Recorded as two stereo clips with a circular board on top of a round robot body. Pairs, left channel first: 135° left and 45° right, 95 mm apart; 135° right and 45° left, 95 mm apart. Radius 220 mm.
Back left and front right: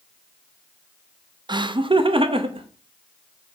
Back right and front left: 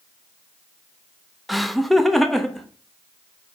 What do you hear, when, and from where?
1.5 s laughter: 45° right, 0.9 m